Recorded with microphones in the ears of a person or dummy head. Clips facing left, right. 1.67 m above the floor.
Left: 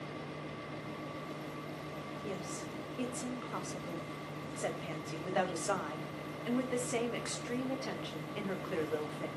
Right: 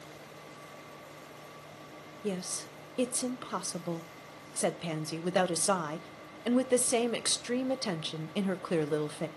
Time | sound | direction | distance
2.2 | a woman speaking | 65° right (ahead or behind) | 1.1 m